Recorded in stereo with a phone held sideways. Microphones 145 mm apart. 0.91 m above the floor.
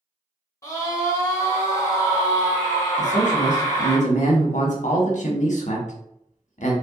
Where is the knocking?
I don't hear knocking.